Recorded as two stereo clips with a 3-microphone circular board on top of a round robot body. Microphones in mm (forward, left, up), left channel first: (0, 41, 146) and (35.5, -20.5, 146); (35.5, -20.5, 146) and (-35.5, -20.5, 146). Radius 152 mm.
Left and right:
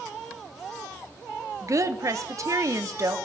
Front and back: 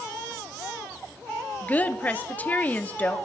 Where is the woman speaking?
60° right, 1.3 m.